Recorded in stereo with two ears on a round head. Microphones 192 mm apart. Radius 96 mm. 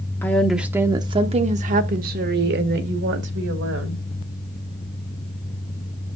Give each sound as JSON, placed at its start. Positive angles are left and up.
{"t": 0.2, "sound": "a woman speaking", "side_deg": 10, "distance_m": 0.8}